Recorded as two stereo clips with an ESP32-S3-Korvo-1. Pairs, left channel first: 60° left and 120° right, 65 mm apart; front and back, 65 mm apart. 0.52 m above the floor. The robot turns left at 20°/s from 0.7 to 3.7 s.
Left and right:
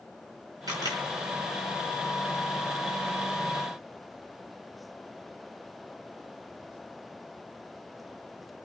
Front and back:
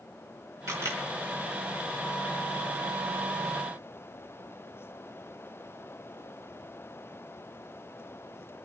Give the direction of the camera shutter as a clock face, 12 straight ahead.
5 o'clock.